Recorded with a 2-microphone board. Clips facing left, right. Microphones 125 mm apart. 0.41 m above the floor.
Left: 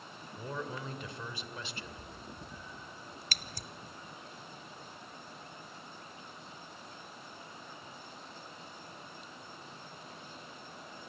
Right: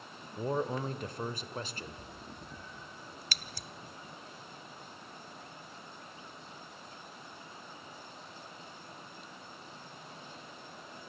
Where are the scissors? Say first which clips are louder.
Left 1 dB; 45° left (ahead or behind), 0.7 m.